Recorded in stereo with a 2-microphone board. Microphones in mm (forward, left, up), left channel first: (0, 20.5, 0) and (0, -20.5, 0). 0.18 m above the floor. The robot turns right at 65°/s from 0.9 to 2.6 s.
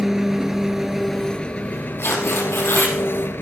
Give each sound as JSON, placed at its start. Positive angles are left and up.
{"t": 0.0, "sound": "an engine running", "azimuth_deg": -5, "distance_m": 1.0}
{"t": 2.0, "sound": "tearing paper", "azimuth_deg": 65, "distance_m": 3.5}